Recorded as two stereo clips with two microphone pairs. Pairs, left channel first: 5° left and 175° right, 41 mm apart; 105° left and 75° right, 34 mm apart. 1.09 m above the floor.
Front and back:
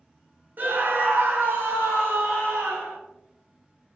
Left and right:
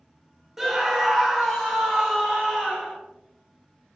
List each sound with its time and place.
0.6 s a scream: 160° right, 0.5 m; by 3.0 s straight behind, 1.6 m